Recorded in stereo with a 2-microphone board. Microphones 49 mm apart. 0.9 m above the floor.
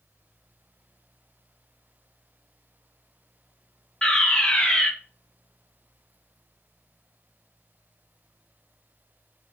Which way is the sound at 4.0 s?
20° left (ahead or behind).